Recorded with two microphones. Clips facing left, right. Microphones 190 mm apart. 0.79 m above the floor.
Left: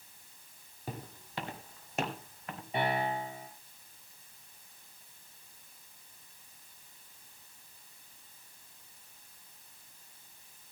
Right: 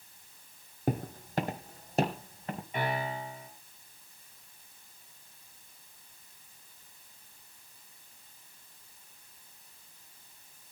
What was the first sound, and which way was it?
Footsteps, 50° right (ahead or behind).